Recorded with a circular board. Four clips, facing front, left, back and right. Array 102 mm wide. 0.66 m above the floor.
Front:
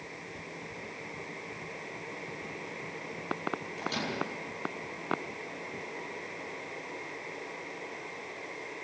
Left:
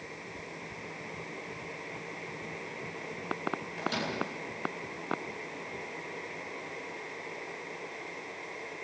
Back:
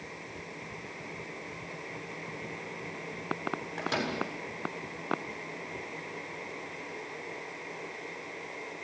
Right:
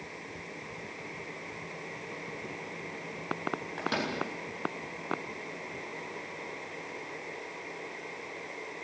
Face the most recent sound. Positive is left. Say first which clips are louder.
# right 3 dB, back 2 dB
turn(degrees=-125)